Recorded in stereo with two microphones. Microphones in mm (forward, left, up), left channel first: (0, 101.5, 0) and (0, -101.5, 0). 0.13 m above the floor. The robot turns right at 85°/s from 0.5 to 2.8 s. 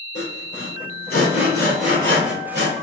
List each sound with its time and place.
0.1 s sawing: 60° left (ahead or behind), 1.7 m; by 2.7 s 65° right (ahead or behind), 1.7 m